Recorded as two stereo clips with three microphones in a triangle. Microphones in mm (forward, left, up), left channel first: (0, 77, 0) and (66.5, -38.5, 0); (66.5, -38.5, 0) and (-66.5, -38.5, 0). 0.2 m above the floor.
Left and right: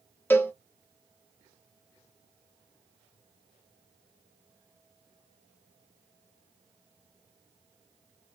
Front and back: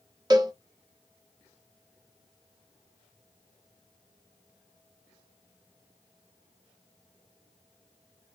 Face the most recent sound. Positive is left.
turn(degrees=180)